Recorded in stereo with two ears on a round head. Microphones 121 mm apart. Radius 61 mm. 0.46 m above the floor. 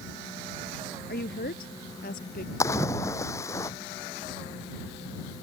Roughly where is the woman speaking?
Left.